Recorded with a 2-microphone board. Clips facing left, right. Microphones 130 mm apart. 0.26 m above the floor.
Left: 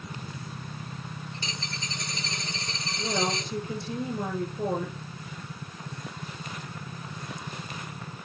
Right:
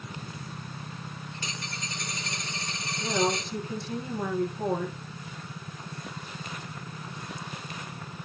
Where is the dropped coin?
25° left (ahead or behind), 5.5 m.